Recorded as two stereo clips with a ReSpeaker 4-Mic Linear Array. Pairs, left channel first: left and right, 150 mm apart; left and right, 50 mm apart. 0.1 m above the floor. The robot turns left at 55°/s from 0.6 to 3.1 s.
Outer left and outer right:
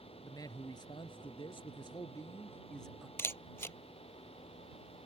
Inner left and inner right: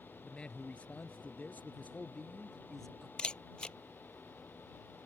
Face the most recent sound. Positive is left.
turn(degrees=15)  # may be behind; listen again after turning